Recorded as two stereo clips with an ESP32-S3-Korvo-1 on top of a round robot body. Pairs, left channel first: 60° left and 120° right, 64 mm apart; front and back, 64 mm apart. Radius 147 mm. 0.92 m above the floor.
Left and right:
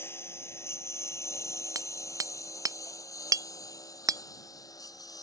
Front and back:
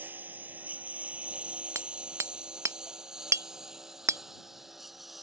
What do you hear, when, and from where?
0.0 s a lawn mower: 115° left; by 5.2 s 95° left
1.8 s hammering: 140° right